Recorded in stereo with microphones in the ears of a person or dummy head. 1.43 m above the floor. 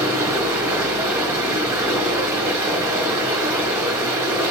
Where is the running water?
15° right (ahead or behind), 1.8 m.